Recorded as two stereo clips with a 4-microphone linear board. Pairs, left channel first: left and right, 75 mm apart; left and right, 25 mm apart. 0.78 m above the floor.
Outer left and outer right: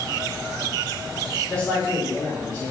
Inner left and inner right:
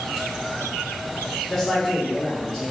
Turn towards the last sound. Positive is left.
turn(degrees=30)  # may be behind; listen again after turning